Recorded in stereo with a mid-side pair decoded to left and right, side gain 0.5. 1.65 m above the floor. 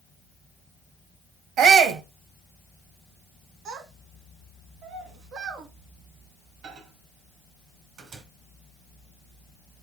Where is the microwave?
65° right, 1.6 m.